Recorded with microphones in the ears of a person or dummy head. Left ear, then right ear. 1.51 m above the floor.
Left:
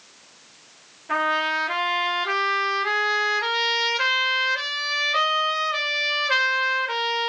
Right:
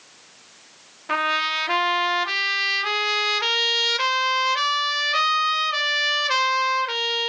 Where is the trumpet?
35° right (ahead or behind), 1.3 m.